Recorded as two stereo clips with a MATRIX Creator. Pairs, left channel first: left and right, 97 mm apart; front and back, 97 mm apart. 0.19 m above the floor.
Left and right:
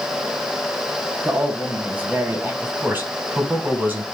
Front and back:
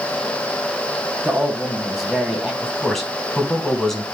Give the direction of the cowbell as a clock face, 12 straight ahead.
No cowbell in this recording.